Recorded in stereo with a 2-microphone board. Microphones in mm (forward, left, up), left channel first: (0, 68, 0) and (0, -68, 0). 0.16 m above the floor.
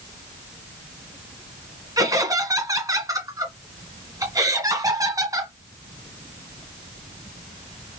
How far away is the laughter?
About 1.5 m.